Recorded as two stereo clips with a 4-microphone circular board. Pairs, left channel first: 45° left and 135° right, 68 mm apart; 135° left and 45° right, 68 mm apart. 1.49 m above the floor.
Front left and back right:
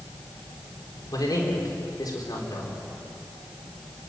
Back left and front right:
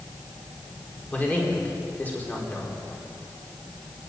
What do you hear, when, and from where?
1.1 s a man speaking: 70° left, 4 m